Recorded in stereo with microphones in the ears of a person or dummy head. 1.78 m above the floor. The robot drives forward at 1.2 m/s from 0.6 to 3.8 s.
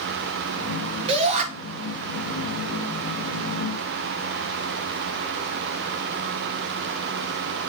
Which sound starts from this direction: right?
A shout, at 1.1 s.